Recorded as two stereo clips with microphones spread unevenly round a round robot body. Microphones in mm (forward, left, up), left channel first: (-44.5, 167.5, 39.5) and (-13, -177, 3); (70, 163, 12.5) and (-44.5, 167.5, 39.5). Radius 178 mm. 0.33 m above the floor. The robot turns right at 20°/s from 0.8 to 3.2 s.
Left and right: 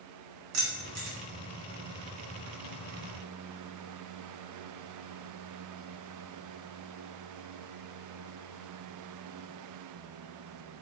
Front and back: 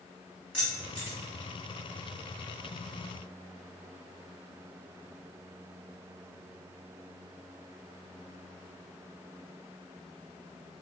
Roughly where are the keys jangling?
Right.